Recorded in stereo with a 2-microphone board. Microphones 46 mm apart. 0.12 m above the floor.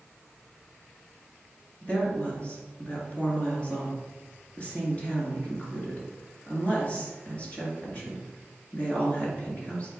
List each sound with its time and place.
1.8 s a woman speaking: 30° left (ahead or behind), 1.9 m